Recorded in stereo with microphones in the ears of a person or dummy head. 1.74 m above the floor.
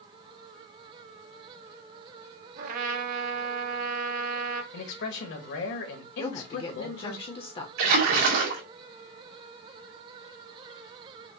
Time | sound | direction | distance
2.6 | a trumpet | 50° right (ahead or behind) | 0.9 m
4.7 | a man speaking | 60° left (ahead or behind) | 1.5 m
6.2 | a woman speaking | 25° left (ahead or behind) | 0.7 m
7.8 | a splash | 65° right (ahead or behind) | 2.5 m